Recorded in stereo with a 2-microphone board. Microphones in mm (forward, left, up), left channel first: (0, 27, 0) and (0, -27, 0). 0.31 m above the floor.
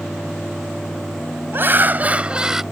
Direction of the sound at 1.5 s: 45° right (ahead or behind).